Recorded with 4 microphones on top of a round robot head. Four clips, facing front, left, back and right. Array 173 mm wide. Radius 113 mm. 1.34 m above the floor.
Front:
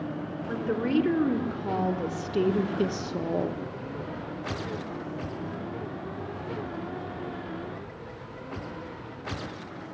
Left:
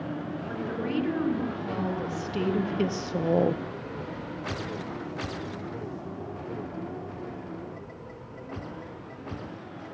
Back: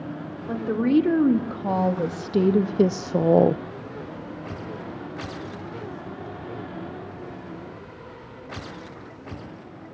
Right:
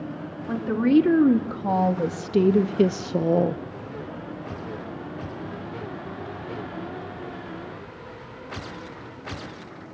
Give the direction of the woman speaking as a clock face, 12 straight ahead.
5 o'clock.